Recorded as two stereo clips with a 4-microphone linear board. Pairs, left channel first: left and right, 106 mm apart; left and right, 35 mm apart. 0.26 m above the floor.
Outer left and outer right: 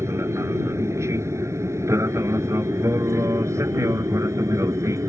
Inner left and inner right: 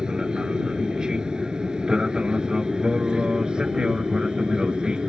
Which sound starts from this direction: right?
An aircraft, at 0.0 s.